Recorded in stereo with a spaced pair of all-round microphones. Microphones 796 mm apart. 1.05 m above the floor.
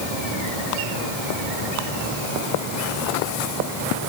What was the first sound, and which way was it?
Only background noise.